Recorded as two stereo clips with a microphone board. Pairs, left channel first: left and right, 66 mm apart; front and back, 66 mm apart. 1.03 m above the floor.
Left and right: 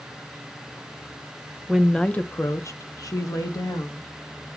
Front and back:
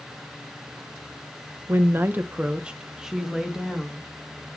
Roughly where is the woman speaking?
Behind.